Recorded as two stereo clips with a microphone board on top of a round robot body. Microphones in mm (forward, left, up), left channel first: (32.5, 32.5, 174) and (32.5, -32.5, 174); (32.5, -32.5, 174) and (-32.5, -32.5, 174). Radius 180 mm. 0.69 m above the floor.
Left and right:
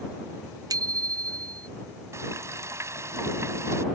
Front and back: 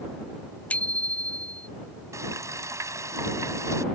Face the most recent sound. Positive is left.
turn(degrees=-140)